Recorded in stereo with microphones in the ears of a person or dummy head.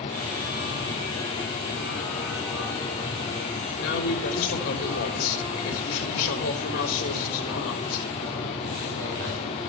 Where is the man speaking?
70° left (ahead or behind), 4 m.